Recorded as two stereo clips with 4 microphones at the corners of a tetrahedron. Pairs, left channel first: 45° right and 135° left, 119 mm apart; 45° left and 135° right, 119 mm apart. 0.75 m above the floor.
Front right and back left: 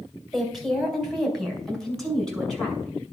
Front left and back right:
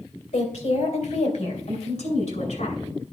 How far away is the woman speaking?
About 3 m.